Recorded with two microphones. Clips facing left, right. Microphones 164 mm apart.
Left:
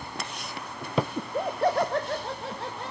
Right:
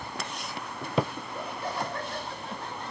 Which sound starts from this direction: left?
Laughter, at 1.2 s.